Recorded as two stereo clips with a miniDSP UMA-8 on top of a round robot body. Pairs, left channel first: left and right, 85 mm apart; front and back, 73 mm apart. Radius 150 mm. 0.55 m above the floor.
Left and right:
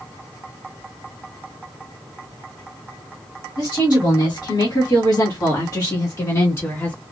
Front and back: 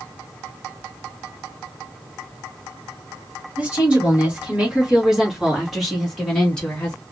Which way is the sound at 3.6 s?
110° left.